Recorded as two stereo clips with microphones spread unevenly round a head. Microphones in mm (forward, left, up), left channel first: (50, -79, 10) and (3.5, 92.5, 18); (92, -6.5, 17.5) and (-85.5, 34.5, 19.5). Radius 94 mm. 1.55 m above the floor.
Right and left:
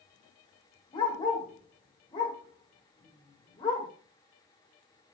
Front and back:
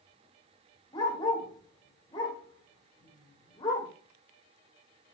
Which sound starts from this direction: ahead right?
A dog barking, at 0.9 s.